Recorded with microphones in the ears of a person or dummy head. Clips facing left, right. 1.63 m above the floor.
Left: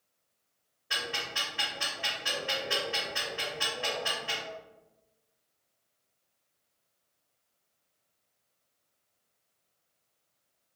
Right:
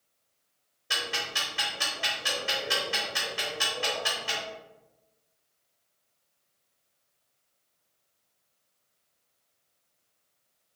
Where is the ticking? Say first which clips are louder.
Right 2 dB; 55° right (ahead or behind), 1.6 m.